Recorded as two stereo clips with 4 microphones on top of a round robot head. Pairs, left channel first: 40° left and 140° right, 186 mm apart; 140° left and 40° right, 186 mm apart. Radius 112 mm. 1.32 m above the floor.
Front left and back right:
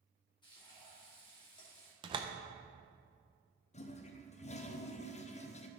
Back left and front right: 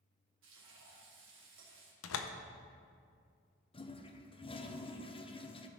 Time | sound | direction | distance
0.4 | frying | 25° right | 2.5 m
2.0 | a door slam | 155° left | 0.6 m
3.7 | a toilet flushing | 85° left | 0.8 m